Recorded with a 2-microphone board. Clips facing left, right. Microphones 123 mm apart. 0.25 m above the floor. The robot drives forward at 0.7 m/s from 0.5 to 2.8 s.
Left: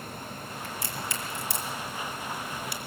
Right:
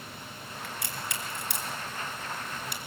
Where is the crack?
70° right (ahead or behind), 3.5 m; by 2.8 s 55° right (ahead or behind), 4 m.